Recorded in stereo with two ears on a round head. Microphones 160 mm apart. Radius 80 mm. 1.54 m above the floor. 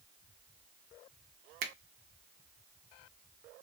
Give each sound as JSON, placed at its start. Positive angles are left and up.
{"t": 1.6, "sound": "a finger snap", "side_deg": -55, "distance_m": 0.6}